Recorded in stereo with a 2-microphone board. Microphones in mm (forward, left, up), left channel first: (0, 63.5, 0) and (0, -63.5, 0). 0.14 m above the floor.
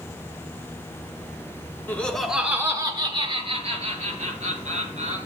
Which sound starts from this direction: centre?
Laughter, at 1.9 s.